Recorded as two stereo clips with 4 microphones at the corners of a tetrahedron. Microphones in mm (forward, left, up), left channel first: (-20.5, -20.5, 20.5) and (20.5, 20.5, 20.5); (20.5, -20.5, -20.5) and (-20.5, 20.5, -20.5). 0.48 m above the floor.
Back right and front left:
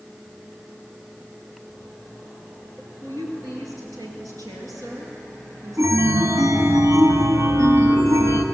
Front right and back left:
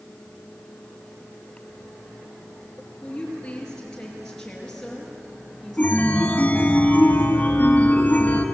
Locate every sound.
3.0 s a woman speaking: 30° left, 8.5 m; by 6.8 s 50° left, 7 m
5.8 s a chime: 20° left, 2.5 m